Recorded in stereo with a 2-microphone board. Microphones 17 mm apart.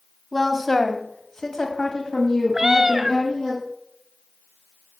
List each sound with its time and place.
0.3 s a woman speaking: 5° left (ahead or behind), 1.7 m; by 3.5 s 35° left (ahead or behind), 3 m
2.5 s a cat meowing: 20° right (ahead or behind), 0.5 m